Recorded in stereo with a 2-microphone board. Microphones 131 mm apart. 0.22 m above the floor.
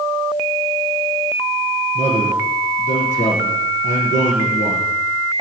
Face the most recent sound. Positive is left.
turn(degrees=65)  # may be behind; listen again after turning